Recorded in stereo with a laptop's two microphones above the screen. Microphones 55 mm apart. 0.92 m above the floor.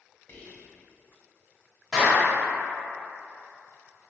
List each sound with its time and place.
0.3 s whispering: 50° left (ahead or behind), 1.2 m
1.9 s a clap: 10° left (ahead or behind), 1.4 m